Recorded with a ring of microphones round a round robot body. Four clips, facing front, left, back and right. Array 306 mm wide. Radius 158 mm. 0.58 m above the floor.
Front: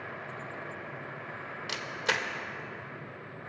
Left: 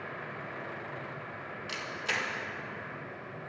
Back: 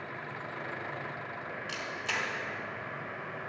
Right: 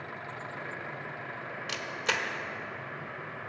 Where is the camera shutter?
40° right, 1.0 m.